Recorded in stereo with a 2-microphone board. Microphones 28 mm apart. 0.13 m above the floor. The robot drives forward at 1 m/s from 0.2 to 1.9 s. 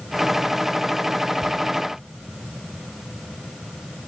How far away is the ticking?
About 1.2 m.